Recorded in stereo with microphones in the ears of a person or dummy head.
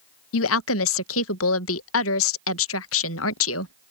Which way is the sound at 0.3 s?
75° left (ahead or behind).